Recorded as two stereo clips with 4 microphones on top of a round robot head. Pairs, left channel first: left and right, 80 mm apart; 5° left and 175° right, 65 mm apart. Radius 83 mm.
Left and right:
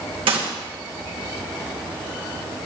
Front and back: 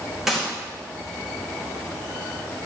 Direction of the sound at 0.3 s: 85° right.